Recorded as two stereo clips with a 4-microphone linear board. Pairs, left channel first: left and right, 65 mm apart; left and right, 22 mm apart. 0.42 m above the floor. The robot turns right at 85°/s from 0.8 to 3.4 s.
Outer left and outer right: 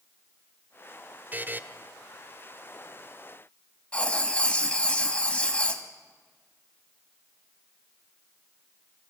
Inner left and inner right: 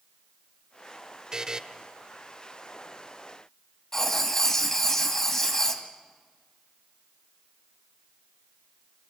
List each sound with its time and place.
1.3 s a buzzer: 30° right (ahead or behind), 0.8 m
3.9 s writing: 15° left (ahead or behind), 1.9 m